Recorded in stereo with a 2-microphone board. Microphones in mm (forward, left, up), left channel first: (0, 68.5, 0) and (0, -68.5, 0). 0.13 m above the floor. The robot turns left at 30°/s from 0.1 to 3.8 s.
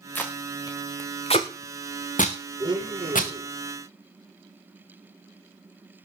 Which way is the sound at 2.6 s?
30° right (ahead or behind).